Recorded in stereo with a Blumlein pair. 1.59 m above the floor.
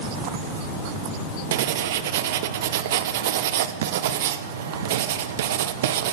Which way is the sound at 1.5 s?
55° right.